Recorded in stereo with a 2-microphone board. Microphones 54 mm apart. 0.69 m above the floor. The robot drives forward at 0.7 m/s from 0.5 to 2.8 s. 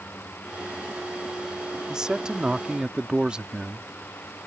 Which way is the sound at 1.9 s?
15° right (ahead or behind).